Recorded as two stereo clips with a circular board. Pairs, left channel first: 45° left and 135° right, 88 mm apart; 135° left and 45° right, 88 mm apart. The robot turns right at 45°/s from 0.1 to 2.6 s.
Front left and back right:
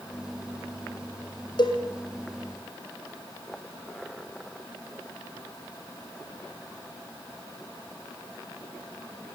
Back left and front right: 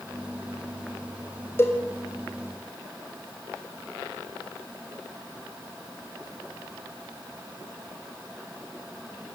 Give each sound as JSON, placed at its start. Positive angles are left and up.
{"t": 1.6, "sound": "a cowbell", "azimuth_deg": 75, "distance_m": 3.0}